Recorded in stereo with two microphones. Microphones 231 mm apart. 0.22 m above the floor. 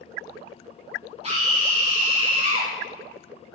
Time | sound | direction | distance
1.2 | a scream | 25° right (ahead or behind) | 1.3 m